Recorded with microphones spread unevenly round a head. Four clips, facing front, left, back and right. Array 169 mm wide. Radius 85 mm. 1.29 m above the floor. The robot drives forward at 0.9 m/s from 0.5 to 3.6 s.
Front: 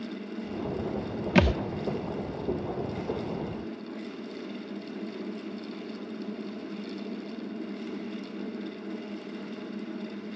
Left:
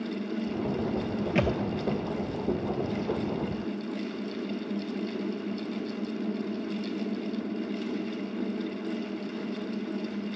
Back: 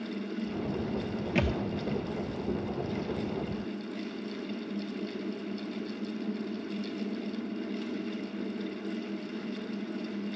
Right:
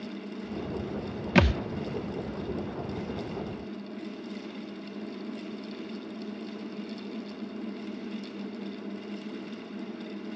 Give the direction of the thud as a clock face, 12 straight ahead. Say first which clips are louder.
Right 4 dB, front 7 dB; 2 o'clock.